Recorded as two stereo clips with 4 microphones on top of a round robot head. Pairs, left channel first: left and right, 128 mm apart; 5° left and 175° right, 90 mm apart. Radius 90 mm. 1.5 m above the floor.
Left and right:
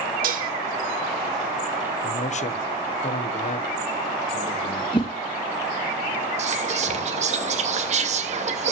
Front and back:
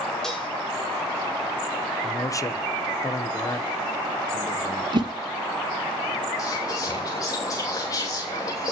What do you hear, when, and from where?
0.2 s dishes clattering: 80° right, 1.5 m
2.0 s a man speaking: 60° left, 1.1 m
4.9 s a whoosh: 150° left, 1.2 m
6.4 s whispering: 55° right, 2.5 m